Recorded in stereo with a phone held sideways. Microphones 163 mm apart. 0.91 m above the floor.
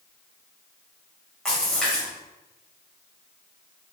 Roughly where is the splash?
Centre.